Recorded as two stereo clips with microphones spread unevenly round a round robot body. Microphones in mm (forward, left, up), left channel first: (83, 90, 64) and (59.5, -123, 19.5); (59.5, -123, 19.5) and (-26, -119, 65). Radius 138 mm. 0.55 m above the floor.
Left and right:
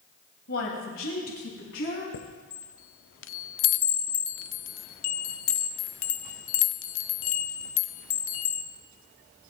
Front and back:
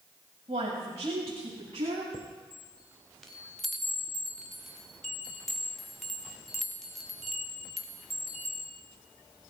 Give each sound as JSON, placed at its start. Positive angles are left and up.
{"t": 0.5, "sound": "a woman speaking", "azimuth_deg": 130, "distance_m": 3.0}
{"t": 2.1, "sound": "a chime", "azimuth_deg": 60, "distance_m": 0.7}